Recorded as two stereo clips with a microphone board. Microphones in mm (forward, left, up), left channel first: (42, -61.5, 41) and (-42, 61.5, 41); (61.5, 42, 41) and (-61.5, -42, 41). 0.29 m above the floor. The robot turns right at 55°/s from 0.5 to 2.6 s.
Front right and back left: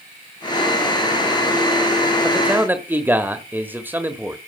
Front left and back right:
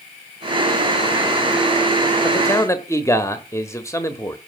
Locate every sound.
2.2 s a man speaking: 50° left, 1.2 m; by 4.4 s 70° left, 1.2 m